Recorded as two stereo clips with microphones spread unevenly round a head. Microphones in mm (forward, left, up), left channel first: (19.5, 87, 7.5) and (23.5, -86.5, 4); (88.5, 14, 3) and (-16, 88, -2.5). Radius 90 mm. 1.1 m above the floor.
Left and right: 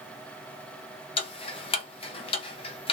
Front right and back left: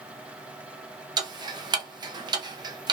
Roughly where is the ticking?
Behind left.